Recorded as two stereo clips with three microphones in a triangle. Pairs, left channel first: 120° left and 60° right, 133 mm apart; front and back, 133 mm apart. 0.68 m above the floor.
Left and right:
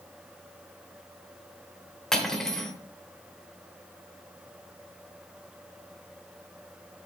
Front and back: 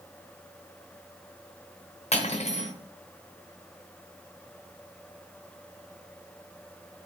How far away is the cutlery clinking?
About 1.2 m.